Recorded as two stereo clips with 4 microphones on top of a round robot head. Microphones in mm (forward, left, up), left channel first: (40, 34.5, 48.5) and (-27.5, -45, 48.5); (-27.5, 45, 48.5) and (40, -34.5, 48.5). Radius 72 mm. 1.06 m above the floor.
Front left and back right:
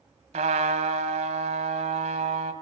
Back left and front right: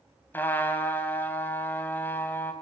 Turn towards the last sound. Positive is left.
turn(degrees=-155)